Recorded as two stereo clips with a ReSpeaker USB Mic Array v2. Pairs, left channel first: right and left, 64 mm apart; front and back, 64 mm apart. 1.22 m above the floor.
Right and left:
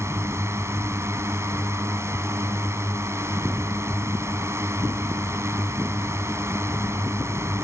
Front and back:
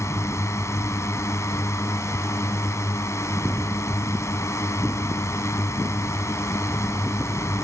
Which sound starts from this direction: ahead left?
A drone, at 0.0 s.